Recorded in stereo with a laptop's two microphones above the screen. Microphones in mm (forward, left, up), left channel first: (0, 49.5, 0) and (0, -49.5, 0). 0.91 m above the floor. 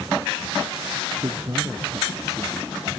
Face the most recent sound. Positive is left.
turn(degrees=-40)  # may be behind; listen again after turning